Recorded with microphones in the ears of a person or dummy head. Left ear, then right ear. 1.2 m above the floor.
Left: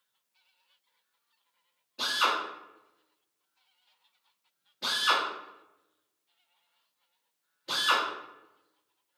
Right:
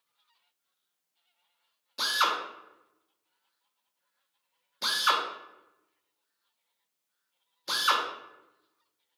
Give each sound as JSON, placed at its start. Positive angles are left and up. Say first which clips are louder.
{"t": 2.0, "sound": "a drill", "louder": "right 1 dB", "side_deg": -70, "distance_m": 0.7}